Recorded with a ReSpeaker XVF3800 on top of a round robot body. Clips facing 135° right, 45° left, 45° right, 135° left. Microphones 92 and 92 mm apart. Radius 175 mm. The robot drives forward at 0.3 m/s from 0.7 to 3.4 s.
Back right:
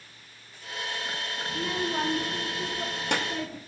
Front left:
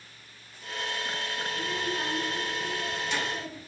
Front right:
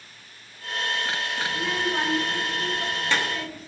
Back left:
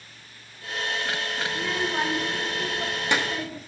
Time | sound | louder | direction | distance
1.5 | a child speaking | back right 4 dB, front right 1 dB | 130° right | 0.7 m